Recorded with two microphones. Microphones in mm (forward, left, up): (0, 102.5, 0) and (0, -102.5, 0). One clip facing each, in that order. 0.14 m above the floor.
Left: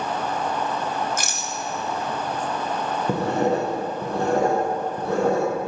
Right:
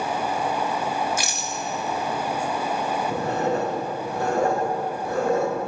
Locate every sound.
1.2 s a rattle: 50° left (ahead or behind), 1.0 m
3.1 s writing: 75° left (ahead or behind), 4 m